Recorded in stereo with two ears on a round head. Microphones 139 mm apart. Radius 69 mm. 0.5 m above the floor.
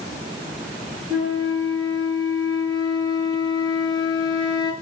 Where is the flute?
30° right (ahead or behind), 7 m.